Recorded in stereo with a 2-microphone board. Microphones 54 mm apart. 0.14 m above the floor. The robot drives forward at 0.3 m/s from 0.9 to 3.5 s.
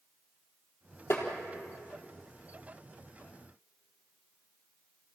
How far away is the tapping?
About 4 m.